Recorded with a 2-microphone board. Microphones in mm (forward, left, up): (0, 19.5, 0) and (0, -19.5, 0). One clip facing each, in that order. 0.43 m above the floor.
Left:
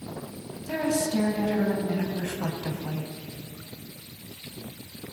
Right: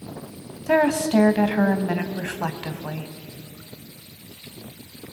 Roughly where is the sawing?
No sawing in this recording.